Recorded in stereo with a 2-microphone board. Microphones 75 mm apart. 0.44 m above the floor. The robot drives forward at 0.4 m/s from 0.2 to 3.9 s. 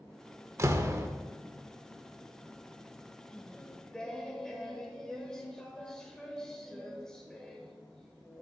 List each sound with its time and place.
0.6 s a door slam: 40° right (ahead or behind), 0.6 m; by 1.1 s 35° right (ahead or behind), 0.6 m
3.3 s singing: 10° left (ahead or behind), 0.7 m